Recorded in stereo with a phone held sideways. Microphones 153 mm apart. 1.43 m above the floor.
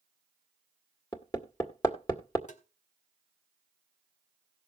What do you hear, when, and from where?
1.1 s hammering: 25° left (ahead or behind), 1.8 m
2.5 s tapping: 55° left (ahead or behind), 1.7 m